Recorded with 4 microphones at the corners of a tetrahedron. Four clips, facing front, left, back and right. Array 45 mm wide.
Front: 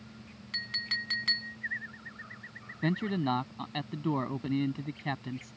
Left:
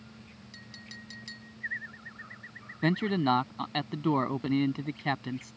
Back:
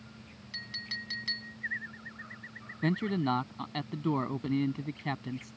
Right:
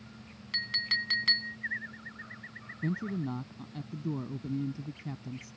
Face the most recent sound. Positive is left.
turn(degrees=90)